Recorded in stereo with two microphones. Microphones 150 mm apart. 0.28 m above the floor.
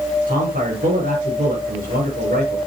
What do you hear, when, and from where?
0.3 s a man speaking: 70° right (ahead or behind), 5 m